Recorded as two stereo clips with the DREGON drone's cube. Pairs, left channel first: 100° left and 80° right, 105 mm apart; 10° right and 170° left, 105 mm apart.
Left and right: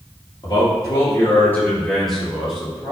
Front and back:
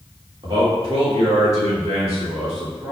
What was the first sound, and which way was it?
A man speaking, 135° left.